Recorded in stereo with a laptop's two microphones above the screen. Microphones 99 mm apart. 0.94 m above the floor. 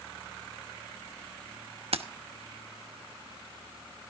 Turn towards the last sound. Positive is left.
turn(degrees=-75)  # may be behind; listen again after turning